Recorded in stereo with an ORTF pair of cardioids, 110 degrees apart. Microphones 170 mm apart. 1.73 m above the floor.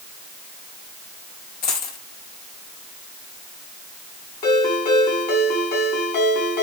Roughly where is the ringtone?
Ahead left.